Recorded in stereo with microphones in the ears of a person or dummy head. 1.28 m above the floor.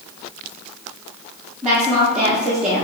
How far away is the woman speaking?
About 1.0 m.